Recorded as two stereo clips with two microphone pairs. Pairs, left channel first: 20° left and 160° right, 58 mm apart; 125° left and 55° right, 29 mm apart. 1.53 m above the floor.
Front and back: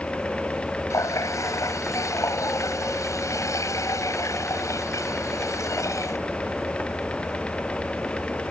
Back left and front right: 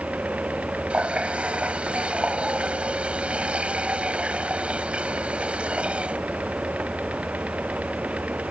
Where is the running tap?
5° right.